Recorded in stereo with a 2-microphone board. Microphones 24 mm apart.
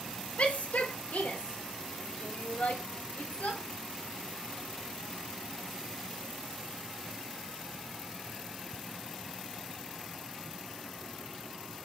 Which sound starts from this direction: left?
A shout, at 0.4 s.